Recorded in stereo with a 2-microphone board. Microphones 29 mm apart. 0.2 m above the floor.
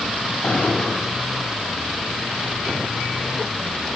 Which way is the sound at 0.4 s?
45° left (ahead or behind).